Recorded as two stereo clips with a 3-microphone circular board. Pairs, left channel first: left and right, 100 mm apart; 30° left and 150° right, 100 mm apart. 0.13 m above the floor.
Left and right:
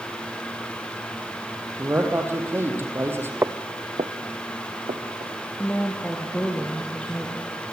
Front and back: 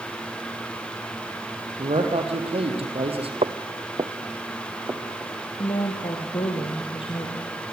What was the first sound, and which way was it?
A man speaking, 155° right.